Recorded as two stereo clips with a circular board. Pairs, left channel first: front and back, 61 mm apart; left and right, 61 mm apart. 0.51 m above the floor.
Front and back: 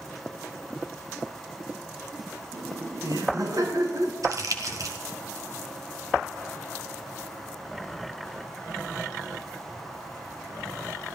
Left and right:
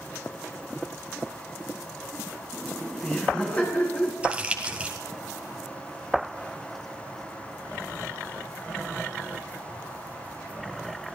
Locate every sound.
2.5 s laughter: 170° left, 5.5 m; by 4.1 s 160° left, 6 m
4.2 s crumpling: 160° right, 2.5 m